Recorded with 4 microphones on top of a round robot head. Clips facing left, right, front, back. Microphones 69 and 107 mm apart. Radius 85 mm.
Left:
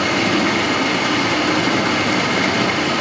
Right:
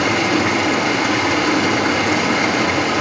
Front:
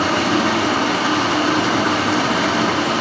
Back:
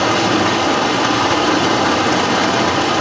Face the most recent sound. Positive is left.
turn(degrees=-155)